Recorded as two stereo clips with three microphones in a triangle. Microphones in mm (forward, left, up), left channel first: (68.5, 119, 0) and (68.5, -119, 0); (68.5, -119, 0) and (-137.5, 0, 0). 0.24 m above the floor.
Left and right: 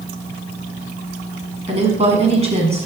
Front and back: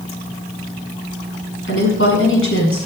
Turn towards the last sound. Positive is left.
turn(degrees=-30)